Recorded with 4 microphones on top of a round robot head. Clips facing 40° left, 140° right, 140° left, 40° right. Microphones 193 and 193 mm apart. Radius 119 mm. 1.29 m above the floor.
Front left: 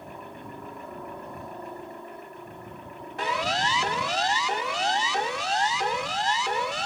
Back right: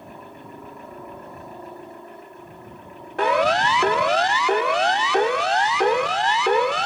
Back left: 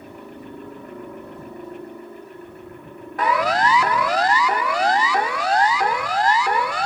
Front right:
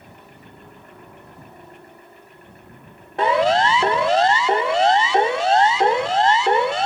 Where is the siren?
105° right.